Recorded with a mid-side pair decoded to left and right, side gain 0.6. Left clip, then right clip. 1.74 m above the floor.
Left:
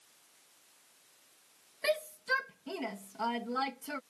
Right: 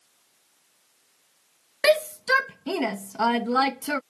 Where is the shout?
60° right.